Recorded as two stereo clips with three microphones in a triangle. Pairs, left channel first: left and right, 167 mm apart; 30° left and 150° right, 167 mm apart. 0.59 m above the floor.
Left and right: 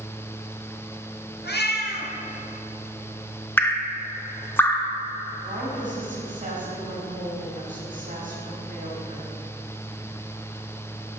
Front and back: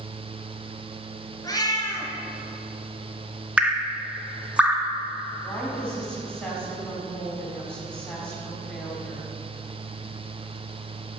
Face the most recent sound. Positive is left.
turn(degrees=-50)